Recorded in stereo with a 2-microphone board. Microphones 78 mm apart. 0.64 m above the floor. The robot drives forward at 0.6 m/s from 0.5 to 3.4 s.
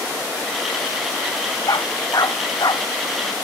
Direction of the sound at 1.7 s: 60° left (ahead or behind).